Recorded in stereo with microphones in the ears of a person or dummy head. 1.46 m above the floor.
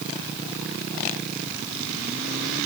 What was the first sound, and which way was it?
Only background noise.